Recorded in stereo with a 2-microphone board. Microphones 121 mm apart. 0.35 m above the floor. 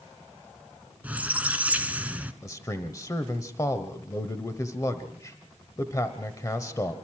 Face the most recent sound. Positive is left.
turn(degrees=30)  # may be behind; listen again after turning